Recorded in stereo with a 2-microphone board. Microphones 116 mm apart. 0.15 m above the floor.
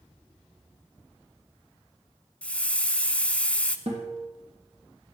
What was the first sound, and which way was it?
A hiss, 10° left (ahead or behind).